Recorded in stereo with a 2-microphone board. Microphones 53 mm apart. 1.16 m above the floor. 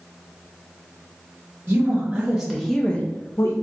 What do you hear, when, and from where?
1.7 s a woman speaking: 35° right (ahead or behind), 0.9 m; by 3.5 s 55° left (ahead or behind), 0.7 m